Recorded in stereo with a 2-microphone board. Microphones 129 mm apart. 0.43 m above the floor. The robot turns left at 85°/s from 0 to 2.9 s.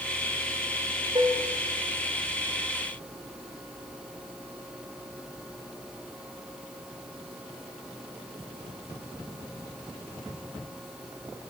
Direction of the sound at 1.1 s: 40° right (ahead or behind).